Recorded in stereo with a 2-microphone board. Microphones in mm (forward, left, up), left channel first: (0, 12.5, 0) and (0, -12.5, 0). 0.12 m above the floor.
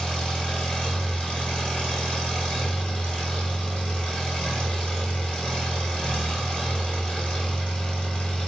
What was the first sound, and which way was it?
An engine running, 45° left (ahead or behind).